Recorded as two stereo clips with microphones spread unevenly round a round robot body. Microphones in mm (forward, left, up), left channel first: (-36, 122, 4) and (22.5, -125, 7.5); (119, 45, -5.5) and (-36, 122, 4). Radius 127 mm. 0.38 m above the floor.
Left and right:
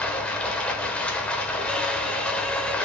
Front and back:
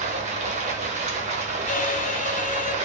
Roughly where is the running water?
Behind.